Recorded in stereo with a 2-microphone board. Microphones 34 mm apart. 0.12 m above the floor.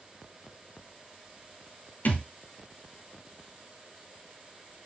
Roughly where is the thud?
Left.